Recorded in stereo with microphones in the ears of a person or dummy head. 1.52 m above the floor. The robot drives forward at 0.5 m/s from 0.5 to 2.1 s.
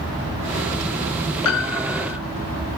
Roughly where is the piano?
Left.